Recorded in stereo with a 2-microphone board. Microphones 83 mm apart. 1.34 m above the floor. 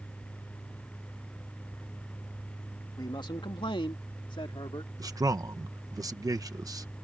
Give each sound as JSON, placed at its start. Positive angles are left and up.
{"t": 3.0, "sound": "a man speaking", "side_deg": 55}
{"t": 5.0, "sound": "a man speaking", "side_deg": -45}